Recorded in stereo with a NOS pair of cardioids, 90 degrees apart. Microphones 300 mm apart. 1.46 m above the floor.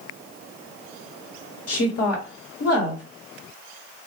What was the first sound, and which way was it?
A woman speaking, 55° left.